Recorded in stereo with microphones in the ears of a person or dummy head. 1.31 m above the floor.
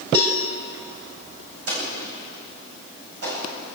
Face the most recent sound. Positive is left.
turn(degrees=-60)  # may be behind; listen again after turning